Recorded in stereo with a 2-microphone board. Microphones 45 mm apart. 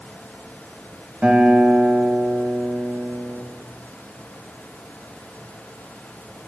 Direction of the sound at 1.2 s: 30° right (ahead or behind).